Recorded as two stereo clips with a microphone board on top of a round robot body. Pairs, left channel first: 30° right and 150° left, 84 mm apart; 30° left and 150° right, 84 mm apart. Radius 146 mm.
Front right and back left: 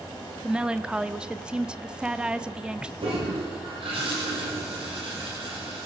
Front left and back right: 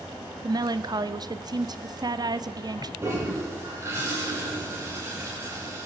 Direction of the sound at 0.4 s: 130° right.